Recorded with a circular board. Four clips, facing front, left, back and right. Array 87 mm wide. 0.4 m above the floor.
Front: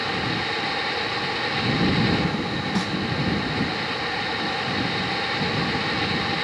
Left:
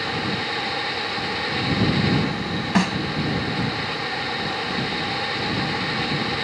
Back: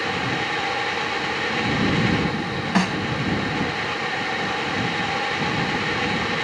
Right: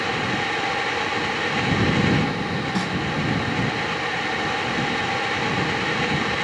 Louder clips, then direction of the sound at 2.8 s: Left 8 dB, back 7 dB; 140° left.